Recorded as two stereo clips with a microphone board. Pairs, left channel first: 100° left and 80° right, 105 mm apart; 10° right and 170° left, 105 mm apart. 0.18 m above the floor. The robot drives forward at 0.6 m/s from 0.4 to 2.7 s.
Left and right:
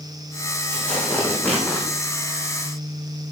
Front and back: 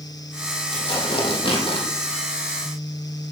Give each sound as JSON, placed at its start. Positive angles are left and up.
{"t": 0.7, "sound": "tearing paper", "azimuth_deg": 25, "distance_m": 5.5}